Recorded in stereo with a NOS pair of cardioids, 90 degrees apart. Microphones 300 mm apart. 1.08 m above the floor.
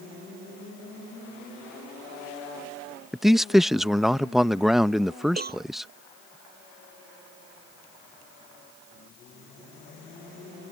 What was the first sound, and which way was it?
A man speaking, straight ahead.